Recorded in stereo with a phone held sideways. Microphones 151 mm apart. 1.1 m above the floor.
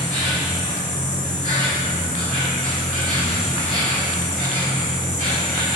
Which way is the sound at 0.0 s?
65° right (ahead or behind).